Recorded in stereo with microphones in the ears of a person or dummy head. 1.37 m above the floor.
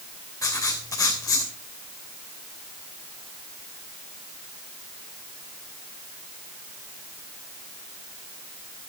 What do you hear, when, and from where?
0.4 s writing: 20° left (ahead or behind), 3 m